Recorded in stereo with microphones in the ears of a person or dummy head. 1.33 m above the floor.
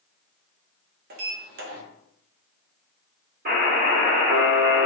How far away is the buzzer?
About 1.5 m.